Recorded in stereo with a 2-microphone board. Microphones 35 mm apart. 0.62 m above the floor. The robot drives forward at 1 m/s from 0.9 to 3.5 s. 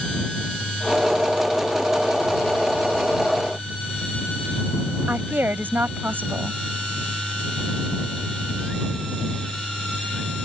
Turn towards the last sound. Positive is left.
turn(degrees=-75)  # may be behind; listen again after turning